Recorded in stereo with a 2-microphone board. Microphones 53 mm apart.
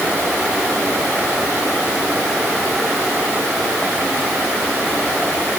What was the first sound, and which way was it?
Only background noise.